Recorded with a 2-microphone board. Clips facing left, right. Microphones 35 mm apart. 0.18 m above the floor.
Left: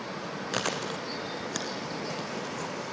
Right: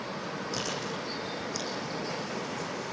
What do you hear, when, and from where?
0.5 s chewing: 55° left (ahead or behind), 3 m